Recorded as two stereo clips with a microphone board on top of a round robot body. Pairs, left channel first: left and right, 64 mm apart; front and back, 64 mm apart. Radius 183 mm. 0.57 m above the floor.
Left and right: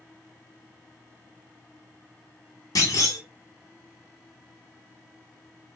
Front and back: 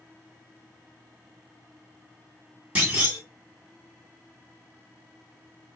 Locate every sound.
2.8 s a clunk: 110° left, 1.5 m